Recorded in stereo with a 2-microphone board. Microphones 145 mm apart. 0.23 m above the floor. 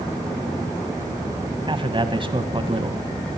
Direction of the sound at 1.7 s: 35° right (ahead or behind).